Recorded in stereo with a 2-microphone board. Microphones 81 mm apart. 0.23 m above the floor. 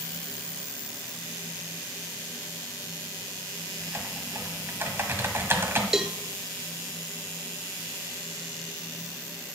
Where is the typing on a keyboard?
30° right (ahead or behind), 1.5 m.